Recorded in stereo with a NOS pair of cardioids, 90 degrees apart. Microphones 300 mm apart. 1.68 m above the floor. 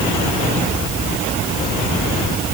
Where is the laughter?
No laughter in this recording.